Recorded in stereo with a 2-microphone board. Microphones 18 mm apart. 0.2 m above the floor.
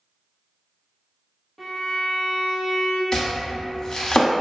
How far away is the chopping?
About 0.5 m.